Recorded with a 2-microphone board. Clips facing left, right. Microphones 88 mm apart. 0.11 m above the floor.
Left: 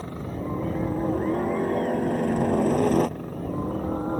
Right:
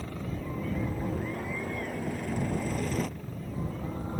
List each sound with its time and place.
0.0 s a helicopter: 30° left (ahead or behind); by 4.2 s 45° left (ahead or behind)